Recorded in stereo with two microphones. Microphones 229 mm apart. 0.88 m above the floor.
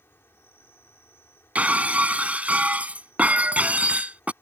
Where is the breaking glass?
5° right (ahead or behind).